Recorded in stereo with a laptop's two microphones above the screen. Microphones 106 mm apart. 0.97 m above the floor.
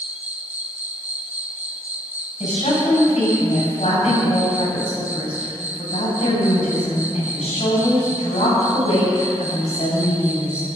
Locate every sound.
0.0 s an insect: 80° right, 1.1 m
2.4 s a woman speaking: 80° left, 8 m